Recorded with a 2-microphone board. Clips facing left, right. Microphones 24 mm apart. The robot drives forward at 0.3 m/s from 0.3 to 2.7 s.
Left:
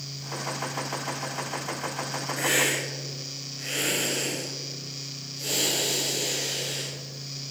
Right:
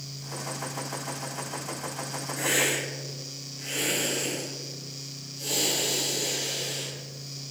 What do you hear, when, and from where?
2.4 s a hiss: 40° left (ahead or behind), 1.0 m